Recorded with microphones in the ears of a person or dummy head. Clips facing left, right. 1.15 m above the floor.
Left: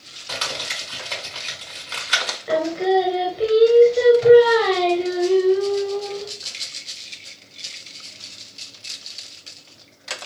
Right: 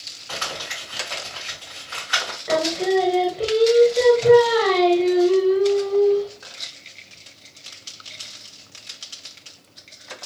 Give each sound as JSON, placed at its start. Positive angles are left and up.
{"t": 0.3, "sound": "crumpling", "side_deg": 55, "distance_m": 1.6}
{"t": 2.5, "sound": "singing", "side_deg": 5, "distance_m": 0.7}